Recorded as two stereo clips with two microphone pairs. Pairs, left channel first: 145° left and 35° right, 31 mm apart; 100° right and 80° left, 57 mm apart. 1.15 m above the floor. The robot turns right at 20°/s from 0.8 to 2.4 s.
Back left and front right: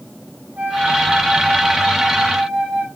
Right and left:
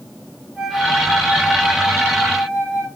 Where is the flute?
Straight ahead, 7 m; by 2.9 s 30° left, 7 m.